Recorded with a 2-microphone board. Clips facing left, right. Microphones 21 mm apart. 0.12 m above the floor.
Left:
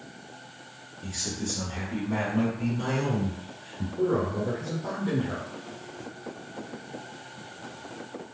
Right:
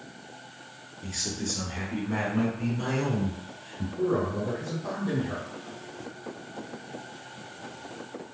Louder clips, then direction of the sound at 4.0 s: Left 1 dB; 35° left (ahead or behind).